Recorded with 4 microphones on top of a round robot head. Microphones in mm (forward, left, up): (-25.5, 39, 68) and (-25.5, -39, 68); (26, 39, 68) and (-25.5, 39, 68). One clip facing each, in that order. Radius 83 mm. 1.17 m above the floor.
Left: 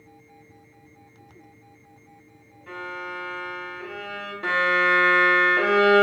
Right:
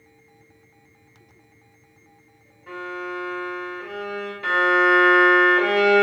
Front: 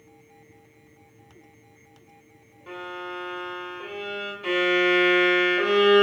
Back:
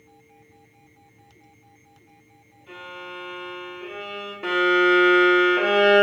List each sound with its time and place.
2.7 s a violin: 5° right, 1.4 m
4.4 s a violin: 150° left, 1.1 m